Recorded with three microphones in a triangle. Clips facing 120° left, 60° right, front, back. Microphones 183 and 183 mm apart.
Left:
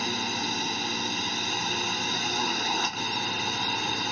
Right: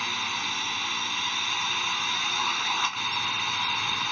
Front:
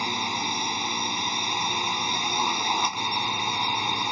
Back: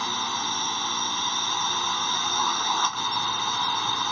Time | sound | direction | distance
0.0 | a drone | 75° left | ?